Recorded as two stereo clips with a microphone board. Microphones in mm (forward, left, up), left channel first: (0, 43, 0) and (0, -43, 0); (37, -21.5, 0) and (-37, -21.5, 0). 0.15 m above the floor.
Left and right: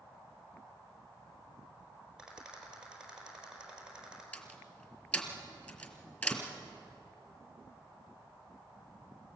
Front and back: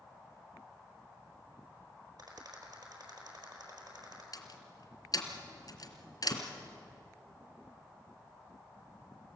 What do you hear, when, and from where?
2.2 s a rattle: 170° right, 4.5 m
4.3 s a door slam: 20° left, 2.5 m